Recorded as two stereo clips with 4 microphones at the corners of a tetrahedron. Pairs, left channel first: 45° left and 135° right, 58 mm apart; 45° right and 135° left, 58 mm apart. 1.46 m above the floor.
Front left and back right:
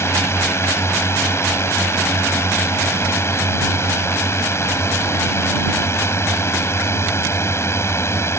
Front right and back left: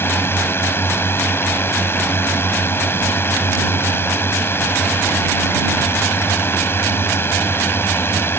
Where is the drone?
5° left.